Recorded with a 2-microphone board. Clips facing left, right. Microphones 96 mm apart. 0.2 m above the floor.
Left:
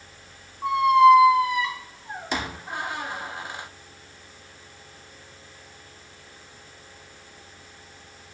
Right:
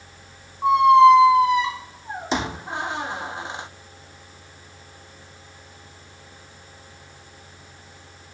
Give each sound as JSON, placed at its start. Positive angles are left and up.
{"t": 0.6, "sound": "a squeak", "side_deg": -25, "distance_m": 0.8}